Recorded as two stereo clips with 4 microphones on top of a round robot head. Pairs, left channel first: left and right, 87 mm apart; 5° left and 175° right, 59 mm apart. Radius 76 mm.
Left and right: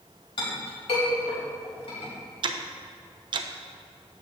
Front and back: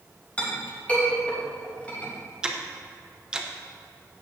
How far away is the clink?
About 3.5 m.